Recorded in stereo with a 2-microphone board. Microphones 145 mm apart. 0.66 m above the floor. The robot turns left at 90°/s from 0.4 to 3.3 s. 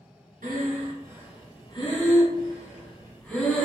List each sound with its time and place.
0.4 s breathing: 80° right, 1.5 m; by 3.6 s 10° left (ahead or behind), 1.5 m